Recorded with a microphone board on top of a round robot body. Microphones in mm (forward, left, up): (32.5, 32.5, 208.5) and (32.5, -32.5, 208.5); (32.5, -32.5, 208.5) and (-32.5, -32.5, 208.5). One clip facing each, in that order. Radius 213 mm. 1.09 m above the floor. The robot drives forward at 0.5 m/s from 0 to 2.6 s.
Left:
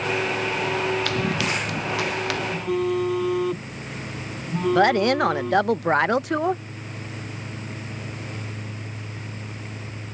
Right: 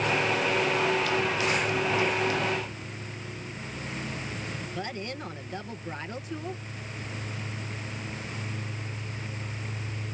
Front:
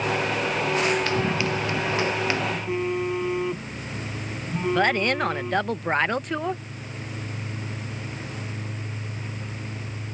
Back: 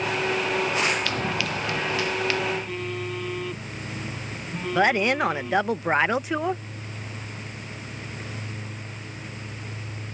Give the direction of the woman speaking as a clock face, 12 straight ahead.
9 o'clock.